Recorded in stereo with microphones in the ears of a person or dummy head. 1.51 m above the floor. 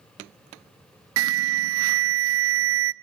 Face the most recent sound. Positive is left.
turn(degrees=-75)  # may be behind; listen again after turning